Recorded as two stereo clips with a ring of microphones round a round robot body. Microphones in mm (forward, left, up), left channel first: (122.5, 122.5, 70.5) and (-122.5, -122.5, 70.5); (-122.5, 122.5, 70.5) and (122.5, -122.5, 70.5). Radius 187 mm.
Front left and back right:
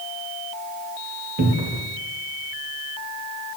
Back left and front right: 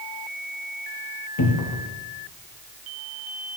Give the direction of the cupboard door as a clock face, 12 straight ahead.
6 o'clock.